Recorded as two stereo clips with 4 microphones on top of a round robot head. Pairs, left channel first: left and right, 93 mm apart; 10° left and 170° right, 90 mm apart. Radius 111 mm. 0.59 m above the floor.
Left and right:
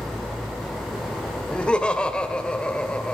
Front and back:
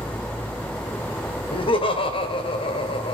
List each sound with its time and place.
1.5 s laughter: 10° left, 2.5 m